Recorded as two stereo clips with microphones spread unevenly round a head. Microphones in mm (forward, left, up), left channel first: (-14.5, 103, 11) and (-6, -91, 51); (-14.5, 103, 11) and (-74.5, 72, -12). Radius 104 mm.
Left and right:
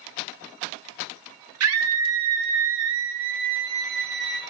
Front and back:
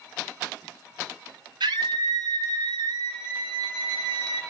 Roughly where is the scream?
Right.